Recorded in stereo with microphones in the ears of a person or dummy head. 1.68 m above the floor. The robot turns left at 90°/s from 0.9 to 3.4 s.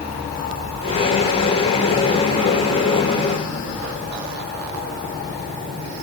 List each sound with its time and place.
Only background noise.